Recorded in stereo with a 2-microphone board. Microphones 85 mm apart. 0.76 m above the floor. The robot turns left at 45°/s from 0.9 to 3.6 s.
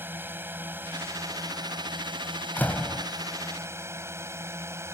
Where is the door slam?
25° left (ahead or behind); by 3.1 s centre (ahead or behind).